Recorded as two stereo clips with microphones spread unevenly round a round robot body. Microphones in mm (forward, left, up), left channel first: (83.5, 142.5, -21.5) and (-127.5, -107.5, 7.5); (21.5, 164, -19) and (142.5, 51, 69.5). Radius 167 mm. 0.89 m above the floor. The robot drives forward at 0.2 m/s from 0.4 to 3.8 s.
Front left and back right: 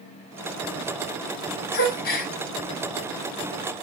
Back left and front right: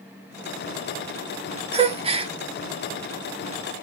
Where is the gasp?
35° left, 0.9 m; by 2.3 s 45° left, 0.9 m.